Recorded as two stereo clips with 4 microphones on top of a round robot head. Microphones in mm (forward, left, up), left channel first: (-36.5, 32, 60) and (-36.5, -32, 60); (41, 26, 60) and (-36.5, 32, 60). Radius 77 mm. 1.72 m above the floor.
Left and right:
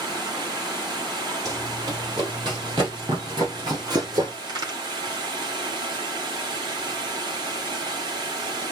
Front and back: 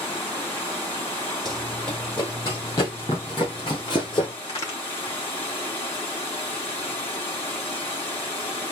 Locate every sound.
0.0 s running water: 80° right, 3 m
1.4 s running footsteps: 95° right, 2 m; by 4.3 s 50° right, 3.5 m
4.4 s a crack: 65° right, 3 m